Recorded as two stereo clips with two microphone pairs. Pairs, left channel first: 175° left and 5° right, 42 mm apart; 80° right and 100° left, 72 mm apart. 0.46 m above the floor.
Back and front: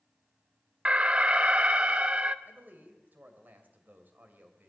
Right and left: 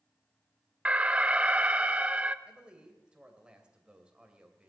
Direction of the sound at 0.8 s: 40° left.